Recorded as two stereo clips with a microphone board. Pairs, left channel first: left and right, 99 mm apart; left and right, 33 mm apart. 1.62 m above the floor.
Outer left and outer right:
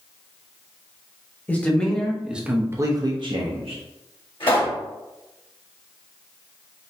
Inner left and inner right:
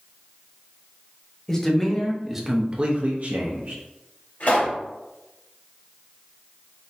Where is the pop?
65° left (ahead or behind), 1.8 m.